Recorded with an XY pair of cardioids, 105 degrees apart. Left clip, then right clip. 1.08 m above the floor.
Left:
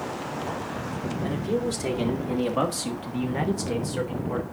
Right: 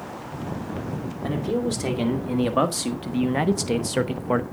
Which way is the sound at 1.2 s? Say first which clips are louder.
Right 2 dB; 20° right.